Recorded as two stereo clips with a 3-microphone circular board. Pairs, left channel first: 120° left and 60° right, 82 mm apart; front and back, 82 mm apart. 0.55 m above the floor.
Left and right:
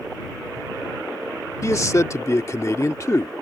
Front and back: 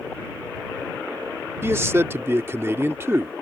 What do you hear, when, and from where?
1.6 s a man speaking: 140° left